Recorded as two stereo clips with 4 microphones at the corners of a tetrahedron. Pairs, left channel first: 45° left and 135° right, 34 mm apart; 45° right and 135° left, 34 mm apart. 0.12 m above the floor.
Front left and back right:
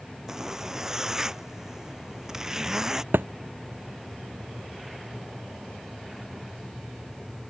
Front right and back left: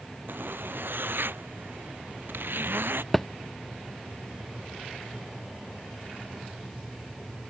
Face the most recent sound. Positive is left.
turn(degrees=-125)